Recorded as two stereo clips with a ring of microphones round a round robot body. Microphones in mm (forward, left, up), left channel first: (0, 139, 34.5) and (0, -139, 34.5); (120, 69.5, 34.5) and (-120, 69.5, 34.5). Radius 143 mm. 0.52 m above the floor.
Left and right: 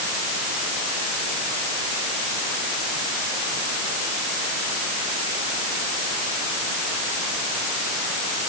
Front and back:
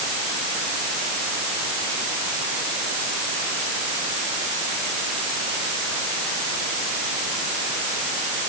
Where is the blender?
No blender in this recording.